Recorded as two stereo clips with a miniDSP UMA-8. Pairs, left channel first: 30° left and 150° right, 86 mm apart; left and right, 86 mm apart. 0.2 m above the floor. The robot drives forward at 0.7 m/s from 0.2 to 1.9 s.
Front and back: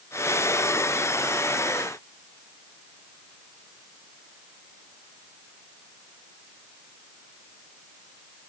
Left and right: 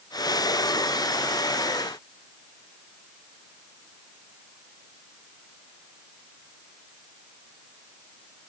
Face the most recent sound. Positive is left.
No sound to turn to.